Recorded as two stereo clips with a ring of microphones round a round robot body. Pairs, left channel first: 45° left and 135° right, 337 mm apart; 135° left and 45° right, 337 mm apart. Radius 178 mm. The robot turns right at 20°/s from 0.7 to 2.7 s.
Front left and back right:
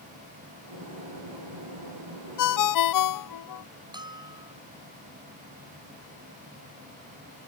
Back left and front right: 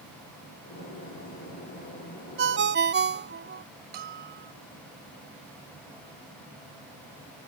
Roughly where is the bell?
Ahead right.